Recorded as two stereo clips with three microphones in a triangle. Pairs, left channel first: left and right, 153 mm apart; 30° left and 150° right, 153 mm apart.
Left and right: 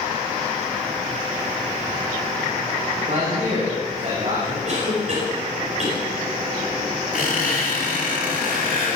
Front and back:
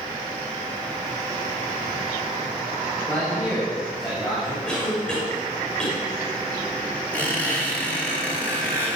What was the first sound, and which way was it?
A man speaking, 50° right.